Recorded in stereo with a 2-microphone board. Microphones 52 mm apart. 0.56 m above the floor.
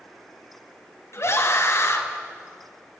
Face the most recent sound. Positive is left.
turn(degrees=65)  # may be behind; listen again after turning